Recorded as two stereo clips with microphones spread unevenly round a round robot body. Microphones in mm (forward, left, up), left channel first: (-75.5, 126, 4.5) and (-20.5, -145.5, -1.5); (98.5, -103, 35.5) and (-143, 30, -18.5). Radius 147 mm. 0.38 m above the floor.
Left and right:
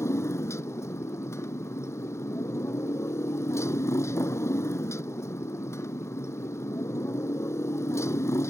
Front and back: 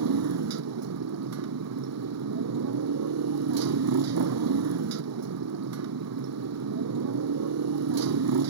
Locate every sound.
0.0 s a motorcycle: straight behind